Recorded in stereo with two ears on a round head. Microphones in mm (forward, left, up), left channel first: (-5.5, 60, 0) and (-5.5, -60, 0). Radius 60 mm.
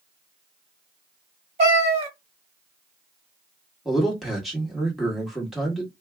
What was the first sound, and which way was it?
A cat meowing, 50° right (ahead or behind).